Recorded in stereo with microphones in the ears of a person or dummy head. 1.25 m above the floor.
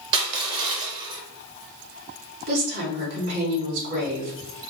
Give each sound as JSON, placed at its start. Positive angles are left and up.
{"t": 0.1, "sound": "crushing", "side_deg": -25, "distance_m": 0.5}
{"t": 2.5, "sound": "a woman speaking", "side_deg": -75, "distance_m": 2.0}